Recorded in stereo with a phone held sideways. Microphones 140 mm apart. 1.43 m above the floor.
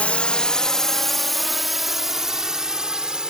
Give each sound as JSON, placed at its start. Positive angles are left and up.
{"t": 0.0, "sound": "a drone", "side_deg": 10}